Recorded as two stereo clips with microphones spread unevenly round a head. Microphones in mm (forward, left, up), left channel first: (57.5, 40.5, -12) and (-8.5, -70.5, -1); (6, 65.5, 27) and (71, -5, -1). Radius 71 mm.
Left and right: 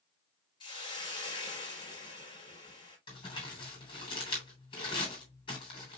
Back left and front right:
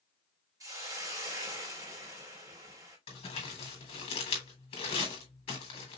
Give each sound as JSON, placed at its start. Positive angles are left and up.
{"t": 0.6, "sound": "a hiss", "azimuth_deg": 5, "distance_m": 3.0}
{"t": 3.1, "sound": "crumpling", "azimuth_deg": 115, "distance_m": 3.0}